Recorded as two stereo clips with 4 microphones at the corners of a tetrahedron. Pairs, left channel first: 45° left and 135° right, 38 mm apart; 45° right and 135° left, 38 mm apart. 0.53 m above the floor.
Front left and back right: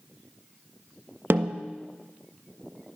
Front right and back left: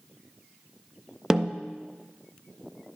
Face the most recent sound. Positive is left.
turn(degrees=-150)